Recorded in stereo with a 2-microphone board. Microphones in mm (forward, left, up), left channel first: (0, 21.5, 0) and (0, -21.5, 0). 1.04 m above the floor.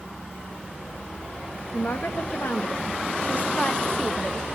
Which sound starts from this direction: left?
A woman speaking, at 1.7 s.